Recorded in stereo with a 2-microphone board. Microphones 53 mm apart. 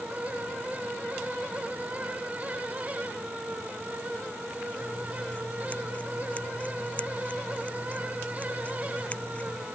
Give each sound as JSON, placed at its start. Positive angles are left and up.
{"t": 4.8, "sound": "scissors", "side_deg": 25}